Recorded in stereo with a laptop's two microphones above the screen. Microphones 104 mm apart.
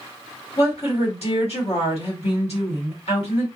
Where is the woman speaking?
80° left, 1.5 m.